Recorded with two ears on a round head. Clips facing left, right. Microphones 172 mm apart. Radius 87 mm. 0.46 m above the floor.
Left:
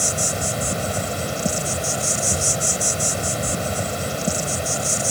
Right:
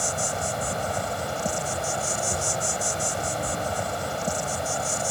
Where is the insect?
30° left (ahead or behind).